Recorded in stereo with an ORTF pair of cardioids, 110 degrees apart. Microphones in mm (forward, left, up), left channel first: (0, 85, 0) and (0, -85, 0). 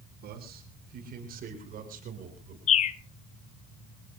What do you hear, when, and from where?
0.2 s a man speaking: 65° right, 6.5 m; by 2.6 s 55° right, 7 m
2.7 s a bird: 45° left, 1.1 m